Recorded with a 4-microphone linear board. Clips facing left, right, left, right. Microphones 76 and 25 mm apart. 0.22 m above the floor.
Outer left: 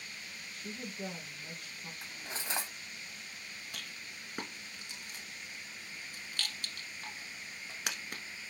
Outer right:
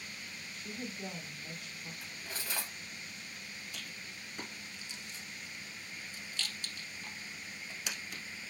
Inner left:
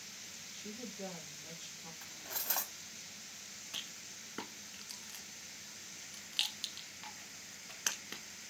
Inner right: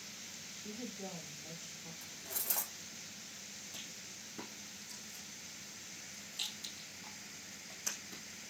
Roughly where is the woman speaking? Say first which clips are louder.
Even, inner right 1 dB; left.